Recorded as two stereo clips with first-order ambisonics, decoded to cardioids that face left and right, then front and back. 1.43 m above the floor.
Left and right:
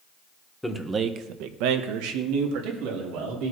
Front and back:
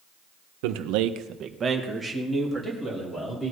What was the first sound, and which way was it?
A man speaking, 175° left.